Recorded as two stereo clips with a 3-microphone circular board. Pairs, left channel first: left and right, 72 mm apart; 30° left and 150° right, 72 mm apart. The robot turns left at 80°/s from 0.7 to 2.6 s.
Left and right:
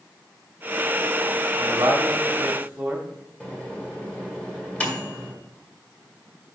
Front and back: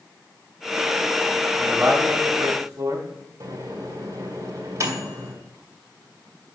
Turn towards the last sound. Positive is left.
turn(degrees=165)